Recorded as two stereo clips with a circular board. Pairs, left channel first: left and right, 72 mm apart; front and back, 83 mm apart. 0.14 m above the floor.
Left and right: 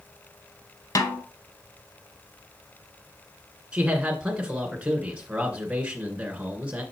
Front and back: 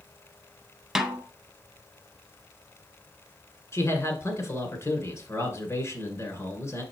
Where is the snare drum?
100° left, 0.8 m.